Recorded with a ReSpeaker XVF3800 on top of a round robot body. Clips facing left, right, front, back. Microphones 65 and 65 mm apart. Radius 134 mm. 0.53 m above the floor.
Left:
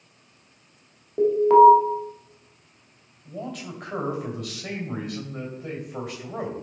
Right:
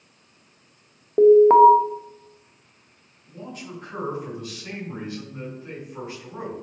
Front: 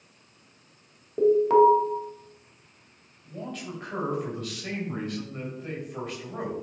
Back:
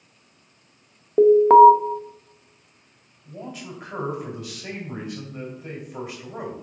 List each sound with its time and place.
1.2 s an alarm: 140° right, 0.9 m
3.2 s a man speaking: 100° left, 3 m